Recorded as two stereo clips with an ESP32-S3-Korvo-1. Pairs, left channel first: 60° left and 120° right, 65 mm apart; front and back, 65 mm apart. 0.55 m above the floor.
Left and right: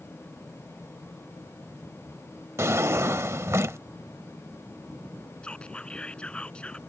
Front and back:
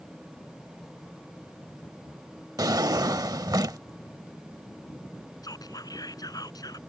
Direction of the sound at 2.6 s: 165° right.